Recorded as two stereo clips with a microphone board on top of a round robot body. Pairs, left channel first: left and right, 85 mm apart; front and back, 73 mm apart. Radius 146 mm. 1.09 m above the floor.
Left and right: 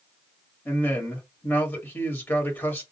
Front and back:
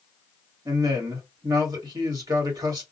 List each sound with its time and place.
0.7 s a man speaking: 155° left, 1.4 m